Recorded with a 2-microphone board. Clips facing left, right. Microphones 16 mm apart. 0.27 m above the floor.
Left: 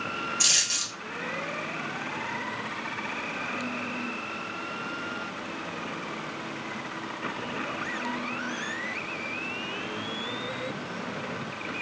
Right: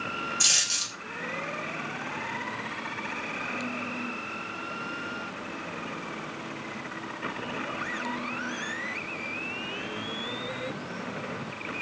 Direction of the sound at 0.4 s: Centre (ahead or behind).